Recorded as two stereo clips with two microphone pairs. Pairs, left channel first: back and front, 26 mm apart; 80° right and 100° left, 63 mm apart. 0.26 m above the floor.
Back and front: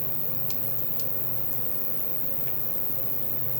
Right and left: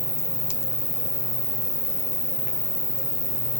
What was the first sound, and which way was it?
An insect, 5° right.